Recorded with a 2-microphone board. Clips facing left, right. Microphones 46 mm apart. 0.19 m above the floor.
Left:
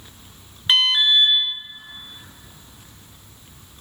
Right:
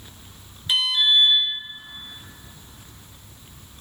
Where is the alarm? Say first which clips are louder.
Left 3 dB; 60° left (ahead or behind), 1.3 m.